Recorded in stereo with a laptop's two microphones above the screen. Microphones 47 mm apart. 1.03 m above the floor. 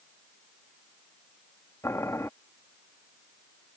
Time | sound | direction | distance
1.8 | boiling | 85° left | ?